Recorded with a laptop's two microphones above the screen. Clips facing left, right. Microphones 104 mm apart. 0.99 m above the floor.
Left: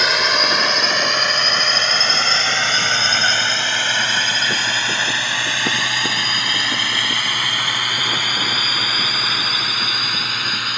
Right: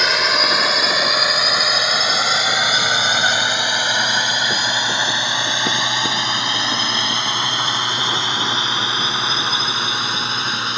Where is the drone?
Centre (ahead or behind); by 10.8 s 25° right (ahead or behind).